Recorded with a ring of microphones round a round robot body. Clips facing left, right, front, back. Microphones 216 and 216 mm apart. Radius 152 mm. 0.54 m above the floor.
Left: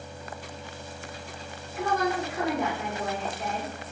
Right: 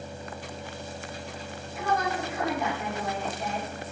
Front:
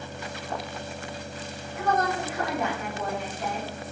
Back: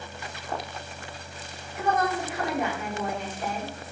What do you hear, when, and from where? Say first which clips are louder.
1.7 s a woman speaking: left 2 dB, even; 105° left, 1.3 m